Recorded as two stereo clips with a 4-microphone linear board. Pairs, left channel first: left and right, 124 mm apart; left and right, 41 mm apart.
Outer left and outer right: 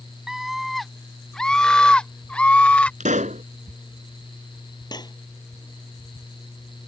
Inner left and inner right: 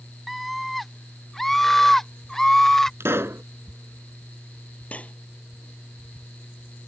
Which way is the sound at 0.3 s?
5° right (ahead or behind).